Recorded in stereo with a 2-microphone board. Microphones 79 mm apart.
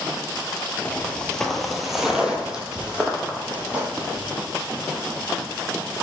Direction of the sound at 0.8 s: 15° left (ahead or behind).